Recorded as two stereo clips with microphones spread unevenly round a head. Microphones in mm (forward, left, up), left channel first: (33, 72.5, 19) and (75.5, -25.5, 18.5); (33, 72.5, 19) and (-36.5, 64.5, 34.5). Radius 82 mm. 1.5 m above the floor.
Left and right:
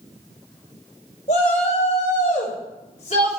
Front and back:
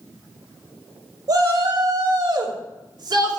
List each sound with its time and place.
1.3 s a shout: 155° left, 3.5 m; by 3.4 s 165° left, 2.5 m